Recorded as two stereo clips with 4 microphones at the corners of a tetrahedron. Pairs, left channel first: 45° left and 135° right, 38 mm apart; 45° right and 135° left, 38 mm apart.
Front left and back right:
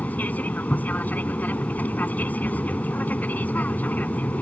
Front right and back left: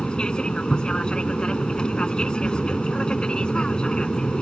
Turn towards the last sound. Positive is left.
turn(degrees=20)